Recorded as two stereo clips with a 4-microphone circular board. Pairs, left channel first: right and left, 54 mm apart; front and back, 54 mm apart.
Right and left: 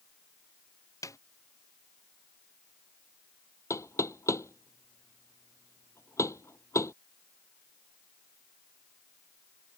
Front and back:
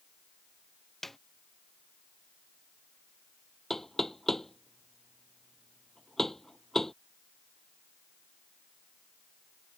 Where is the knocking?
85° right.